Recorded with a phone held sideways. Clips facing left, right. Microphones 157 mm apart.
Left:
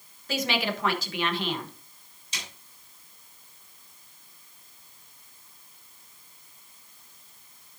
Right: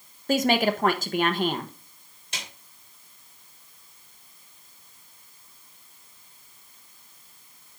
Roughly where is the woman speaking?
Right.